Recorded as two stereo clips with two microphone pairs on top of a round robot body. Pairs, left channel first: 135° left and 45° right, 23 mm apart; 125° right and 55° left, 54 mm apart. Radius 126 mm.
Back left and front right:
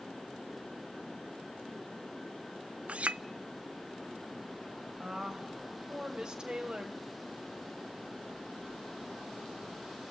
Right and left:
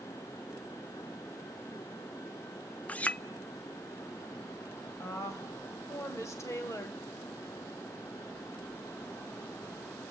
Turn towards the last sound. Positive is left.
turn(degrees=-100)